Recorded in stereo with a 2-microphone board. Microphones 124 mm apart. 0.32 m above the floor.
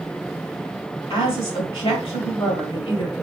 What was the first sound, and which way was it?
A woman speaking, 40° left (ahead or behind).